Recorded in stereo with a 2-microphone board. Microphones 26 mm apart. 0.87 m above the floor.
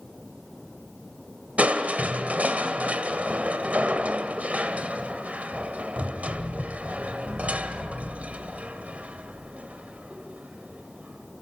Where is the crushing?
75° right (ahead or behind), 1.8 m.